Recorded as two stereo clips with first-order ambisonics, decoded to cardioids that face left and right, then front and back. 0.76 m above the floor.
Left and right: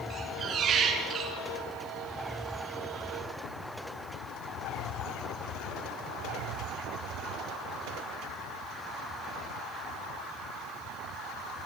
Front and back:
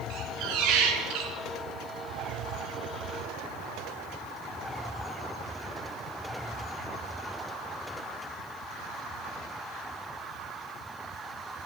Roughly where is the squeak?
Behind right.